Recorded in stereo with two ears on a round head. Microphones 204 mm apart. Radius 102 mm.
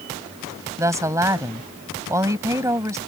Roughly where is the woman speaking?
Centre.